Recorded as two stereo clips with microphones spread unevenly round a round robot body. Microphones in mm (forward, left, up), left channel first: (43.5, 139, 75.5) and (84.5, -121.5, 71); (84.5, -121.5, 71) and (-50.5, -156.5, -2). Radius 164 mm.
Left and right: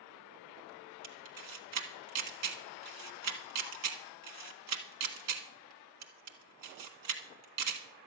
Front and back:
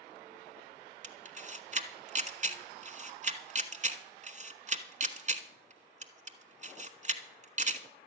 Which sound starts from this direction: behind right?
A camera shutter, at 1.0 s.